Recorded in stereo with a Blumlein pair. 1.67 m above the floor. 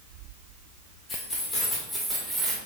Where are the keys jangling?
25° left, 1.8 m; by 2.6 s 10° right, 1.1 m.